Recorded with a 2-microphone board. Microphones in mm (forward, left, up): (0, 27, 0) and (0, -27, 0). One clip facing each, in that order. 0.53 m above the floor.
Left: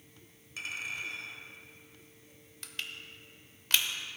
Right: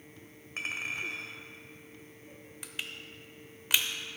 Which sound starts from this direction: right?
A clink, at 0.6 s.